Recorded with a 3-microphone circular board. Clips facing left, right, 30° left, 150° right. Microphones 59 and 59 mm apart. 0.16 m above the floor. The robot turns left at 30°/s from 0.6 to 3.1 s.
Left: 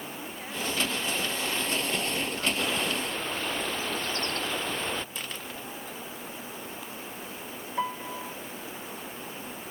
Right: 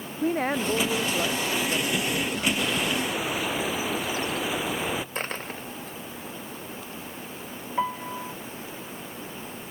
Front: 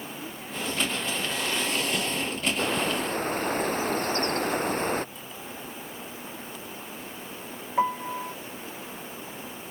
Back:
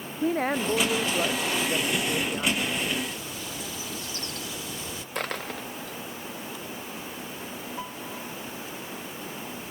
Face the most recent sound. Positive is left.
turn(degrees=-10)